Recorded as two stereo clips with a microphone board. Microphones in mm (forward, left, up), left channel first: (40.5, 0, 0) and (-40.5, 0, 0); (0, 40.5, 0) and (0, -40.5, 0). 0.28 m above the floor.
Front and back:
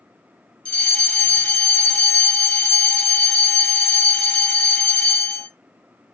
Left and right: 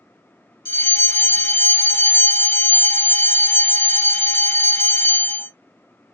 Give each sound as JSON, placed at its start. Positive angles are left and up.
{"t": 0.7, "sound": "a fire alarm", "azimuth_deg": 40, "distance_m": 1.9}